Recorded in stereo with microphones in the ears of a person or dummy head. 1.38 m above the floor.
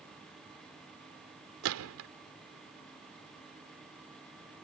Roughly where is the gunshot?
Right.